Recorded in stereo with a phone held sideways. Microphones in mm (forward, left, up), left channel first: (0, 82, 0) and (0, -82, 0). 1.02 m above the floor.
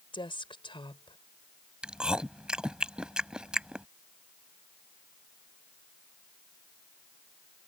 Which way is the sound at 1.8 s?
5° right (ahead or behind).